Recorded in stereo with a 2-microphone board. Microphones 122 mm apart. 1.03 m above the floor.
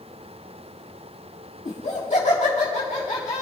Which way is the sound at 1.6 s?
70° left (ahead or behind).